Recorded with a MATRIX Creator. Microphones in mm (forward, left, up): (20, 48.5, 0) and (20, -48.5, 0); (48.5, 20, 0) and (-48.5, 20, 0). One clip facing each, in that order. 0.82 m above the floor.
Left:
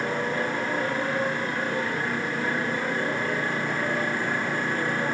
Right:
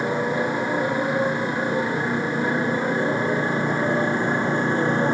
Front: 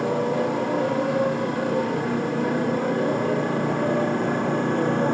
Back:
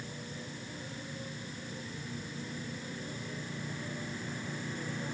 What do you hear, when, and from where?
0.0 s a motorcycle: 15° right; by 5.2 s 25° right